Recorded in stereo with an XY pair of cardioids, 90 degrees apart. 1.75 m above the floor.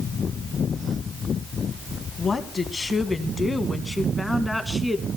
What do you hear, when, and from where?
2.2 s a woman speaking: 40° left, 2 m; by 5.1 s straight ahead, 2.5 m